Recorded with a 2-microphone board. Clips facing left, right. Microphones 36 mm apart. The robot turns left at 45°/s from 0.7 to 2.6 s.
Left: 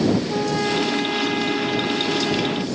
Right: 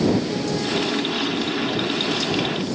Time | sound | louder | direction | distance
0.3 | a trumpet | left 2 dB | 145° left | ?